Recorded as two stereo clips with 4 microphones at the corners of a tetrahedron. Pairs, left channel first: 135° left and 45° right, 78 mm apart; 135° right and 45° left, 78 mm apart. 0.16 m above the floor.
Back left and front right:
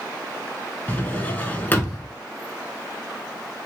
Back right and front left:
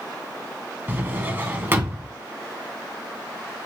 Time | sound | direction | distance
0.9 | a drawer | 85° left | 0.6 m